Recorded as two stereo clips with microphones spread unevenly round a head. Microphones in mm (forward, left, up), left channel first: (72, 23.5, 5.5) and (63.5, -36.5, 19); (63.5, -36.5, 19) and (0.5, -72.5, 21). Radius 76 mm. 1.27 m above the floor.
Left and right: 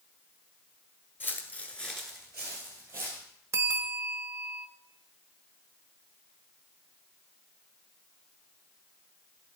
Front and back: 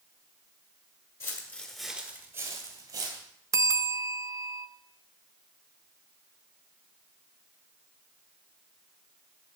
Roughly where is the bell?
Behind right.